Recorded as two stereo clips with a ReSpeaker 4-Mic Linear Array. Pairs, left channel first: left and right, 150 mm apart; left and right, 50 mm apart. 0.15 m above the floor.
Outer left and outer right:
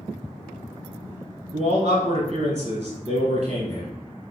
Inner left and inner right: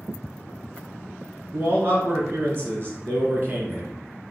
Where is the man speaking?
45° right (ahead or behind), 1.5 m.